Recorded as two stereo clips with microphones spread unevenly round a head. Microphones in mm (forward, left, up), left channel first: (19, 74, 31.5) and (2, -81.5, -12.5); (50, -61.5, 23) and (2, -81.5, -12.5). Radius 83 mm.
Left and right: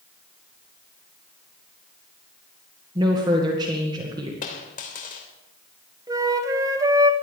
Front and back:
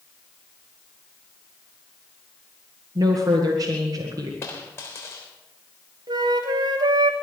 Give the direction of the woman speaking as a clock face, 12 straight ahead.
5 o'clock.